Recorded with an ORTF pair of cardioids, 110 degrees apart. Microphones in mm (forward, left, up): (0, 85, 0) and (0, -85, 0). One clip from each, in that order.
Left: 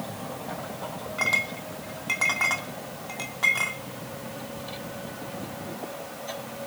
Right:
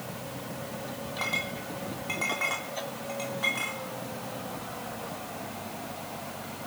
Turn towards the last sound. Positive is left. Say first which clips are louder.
# left 6 dB
turn(degrees=35)